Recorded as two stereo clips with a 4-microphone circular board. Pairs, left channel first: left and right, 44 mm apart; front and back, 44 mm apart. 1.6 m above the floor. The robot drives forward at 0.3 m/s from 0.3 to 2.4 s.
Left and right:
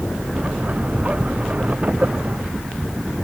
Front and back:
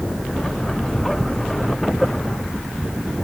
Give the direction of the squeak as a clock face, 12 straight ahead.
I don't hear a squeak.